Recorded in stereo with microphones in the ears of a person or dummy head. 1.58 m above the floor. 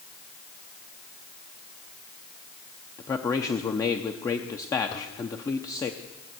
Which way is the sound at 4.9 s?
30° left (ahead or behind).